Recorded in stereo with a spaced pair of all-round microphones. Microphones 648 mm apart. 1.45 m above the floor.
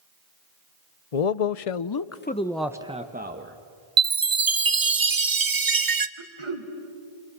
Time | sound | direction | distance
1.1 | a man speaking | 65° left (ahead or behind) | 0.8 m
4.0 | a chime | 35° right (ahead or behind) | 0.7 m
6.2 | throat clearing | 45° right (ahead or behind) | 1.6 m